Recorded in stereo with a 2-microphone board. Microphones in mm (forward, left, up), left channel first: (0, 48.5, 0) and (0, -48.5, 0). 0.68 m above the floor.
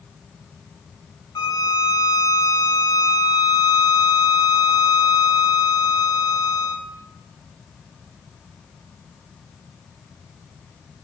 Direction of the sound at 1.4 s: 40° left (ahead or behind).